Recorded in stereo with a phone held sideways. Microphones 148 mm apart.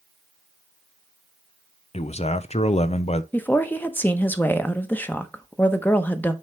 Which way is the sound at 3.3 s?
15° left (ahead or behind).